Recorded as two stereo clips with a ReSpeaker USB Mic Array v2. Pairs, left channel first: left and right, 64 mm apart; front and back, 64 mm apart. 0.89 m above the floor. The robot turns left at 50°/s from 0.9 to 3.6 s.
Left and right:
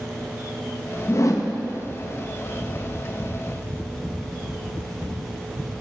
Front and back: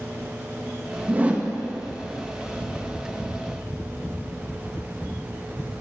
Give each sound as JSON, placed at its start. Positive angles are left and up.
{"t": 1.1, "sound": "a whoosh", "azimuth_deg": 125, "distance_m": 0.5}